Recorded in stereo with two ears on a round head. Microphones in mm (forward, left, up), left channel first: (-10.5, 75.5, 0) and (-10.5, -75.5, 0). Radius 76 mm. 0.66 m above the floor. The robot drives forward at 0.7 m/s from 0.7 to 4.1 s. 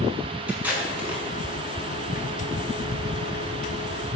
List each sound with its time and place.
0.5 s tape being pulled: 10° right (ahead or behind), 6 m